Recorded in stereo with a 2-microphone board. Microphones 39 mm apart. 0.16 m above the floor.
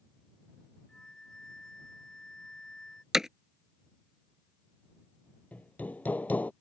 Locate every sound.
0.9 s a flute: 20° left (ahead or behind)
3.1 s hammering: 10° right (ahead or behind)
5.5 s hammering: 40° left (ahead or behind)